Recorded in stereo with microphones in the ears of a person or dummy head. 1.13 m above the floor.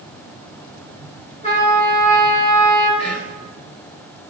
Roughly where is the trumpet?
Left.